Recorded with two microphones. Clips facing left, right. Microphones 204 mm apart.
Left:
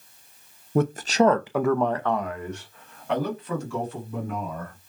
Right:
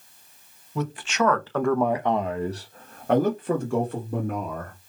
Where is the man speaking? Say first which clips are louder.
Left 6 dB; 55° left (ahead or behind), 0.7 m; by 4.8 s 60° right (ahead or behind), 1.9 m.